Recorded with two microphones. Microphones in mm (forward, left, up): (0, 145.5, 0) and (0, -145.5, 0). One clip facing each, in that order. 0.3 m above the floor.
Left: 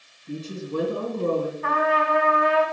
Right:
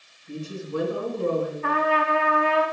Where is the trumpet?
35° right (ahead or behind), 2.5 m.